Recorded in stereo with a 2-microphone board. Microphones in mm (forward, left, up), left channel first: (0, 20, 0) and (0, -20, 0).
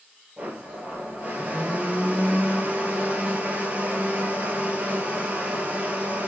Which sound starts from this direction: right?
A blender, at 0.4 s.